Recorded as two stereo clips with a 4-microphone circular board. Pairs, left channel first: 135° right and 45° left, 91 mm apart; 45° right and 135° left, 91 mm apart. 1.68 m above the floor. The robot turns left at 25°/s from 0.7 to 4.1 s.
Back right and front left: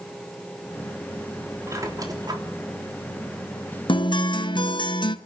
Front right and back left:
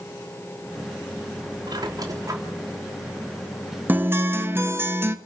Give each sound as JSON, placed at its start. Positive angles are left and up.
{"t": 1.7, "sound": "a squeak", "azimuth_deg": 100, "distance_m": 3.0}
{"t": 3.9, "sound": "a guitar", "azimuth_deg": -155, "distance_m": 1.2}